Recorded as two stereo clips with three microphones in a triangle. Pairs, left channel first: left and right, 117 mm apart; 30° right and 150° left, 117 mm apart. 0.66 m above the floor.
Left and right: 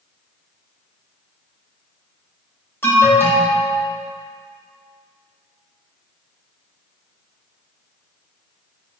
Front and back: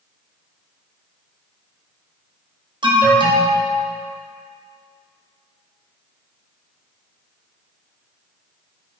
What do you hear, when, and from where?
2.8 s an alarm: 150° left, 1.2 m